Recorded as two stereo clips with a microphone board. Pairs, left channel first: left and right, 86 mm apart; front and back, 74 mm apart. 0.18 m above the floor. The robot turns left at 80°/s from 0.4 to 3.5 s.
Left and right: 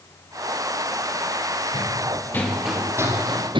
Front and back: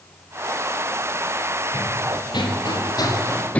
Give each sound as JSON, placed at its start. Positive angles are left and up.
{"t": 1.7, "sound": "running footsteps", "azimuth_deg": 70, "distance_m": 5.0}